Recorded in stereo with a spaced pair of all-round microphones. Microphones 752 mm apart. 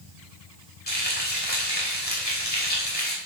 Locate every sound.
0.9 s frying: 10° left (ahead or behind), 6.5 m